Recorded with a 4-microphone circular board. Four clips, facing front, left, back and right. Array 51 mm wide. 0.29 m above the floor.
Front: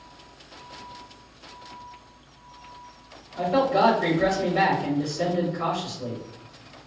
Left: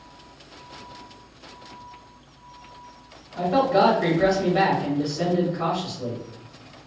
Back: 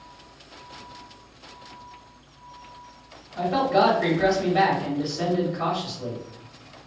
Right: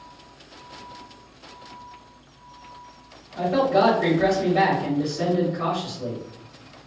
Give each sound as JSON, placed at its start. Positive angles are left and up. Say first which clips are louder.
{"t": 3.4, "sound": "a man speaking", "louder": "even, even", "azimuth_deg": 160, "distance_m": 1.3}